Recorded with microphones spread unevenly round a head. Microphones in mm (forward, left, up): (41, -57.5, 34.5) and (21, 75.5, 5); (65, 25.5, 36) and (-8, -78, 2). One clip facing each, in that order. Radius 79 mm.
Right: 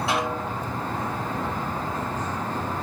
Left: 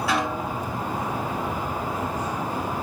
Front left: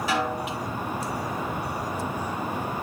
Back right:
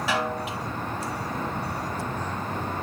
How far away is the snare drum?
About 7 m.